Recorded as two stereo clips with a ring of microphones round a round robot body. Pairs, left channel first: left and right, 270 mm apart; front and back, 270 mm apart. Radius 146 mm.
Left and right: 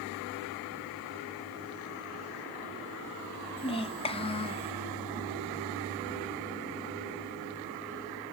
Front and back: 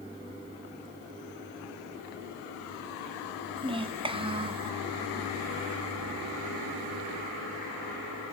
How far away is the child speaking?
About 0.7 m.